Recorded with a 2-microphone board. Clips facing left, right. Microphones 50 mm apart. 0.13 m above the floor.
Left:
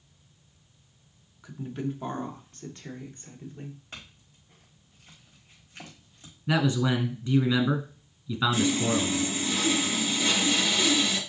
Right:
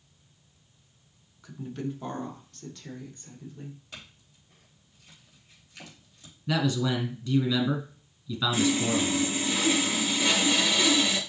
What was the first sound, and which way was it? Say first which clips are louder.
A woman speaking: left 2 dB; 10° left (ahead or behind).